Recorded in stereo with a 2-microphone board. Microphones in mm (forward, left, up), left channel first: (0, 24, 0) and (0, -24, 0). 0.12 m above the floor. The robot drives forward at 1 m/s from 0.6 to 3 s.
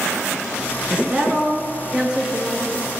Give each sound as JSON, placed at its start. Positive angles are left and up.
{"t": 0.9, "sound": "a woman speaking", "side_deg": -20, "distance_m": 1.2}